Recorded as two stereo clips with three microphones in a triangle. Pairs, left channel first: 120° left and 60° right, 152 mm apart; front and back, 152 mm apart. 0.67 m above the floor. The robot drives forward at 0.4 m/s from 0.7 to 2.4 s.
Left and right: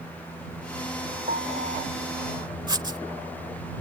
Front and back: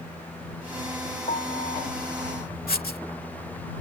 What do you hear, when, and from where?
1.3 s a piano: 40° right
2.7 s writing: 5° left